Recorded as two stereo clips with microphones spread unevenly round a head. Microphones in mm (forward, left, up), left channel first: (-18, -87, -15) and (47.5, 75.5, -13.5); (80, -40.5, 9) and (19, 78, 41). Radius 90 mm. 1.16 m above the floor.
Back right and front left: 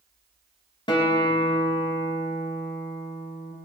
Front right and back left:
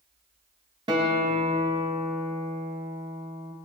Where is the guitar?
Straight behind, 1.7 m.